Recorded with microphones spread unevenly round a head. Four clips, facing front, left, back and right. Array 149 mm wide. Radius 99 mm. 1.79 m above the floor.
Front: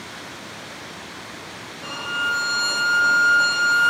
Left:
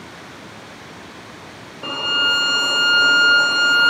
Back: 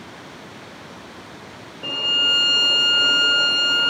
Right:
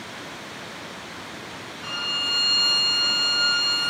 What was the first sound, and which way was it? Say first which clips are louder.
A violin: left 11 dB, front 2 dB; 120° left.